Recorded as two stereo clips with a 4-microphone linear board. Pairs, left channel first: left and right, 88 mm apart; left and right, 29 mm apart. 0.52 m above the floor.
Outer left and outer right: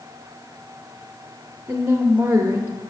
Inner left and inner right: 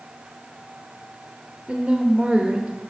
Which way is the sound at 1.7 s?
25° right (ahead or behind).